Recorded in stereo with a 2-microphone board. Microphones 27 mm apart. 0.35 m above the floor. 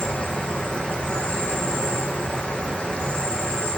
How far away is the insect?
About 2 m.